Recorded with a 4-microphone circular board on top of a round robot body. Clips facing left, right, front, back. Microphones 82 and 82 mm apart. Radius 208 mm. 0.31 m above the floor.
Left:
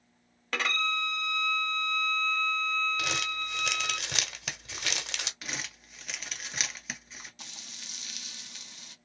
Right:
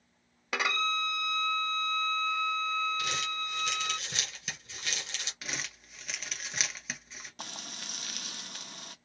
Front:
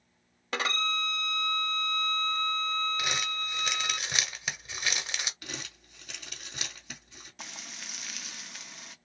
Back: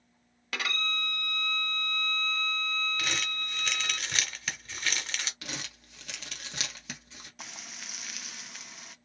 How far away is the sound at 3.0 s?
About 1.0 m.